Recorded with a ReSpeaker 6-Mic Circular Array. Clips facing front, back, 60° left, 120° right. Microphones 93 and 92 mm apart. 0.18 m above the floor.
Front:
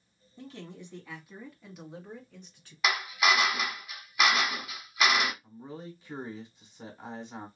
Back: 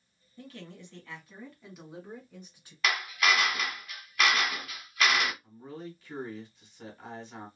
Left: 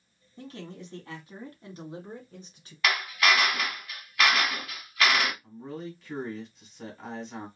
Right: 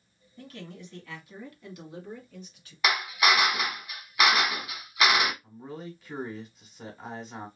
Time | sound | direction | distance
0.4 | a man speaking | 35° left | 1.2 m
2.8 | a drill | 60° right | 0.8 m
5.4 | a man speaking | 40° right | 1.2 m